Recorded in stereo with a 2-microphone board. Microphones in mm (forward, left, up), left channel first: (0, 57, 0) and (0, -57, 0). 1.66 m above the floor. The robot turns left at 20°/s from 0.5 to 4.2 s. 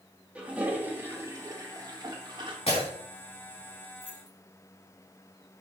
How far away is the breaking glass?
About 4 m.